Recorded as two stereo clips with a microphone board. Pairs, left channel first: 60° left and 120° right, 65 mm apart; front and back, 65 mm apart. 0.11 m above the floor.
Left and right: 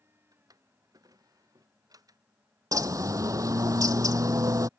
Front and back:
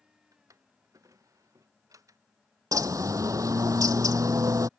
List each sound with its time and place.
0.3 s a drawer: 145° right
2.7 s a bird: 150° right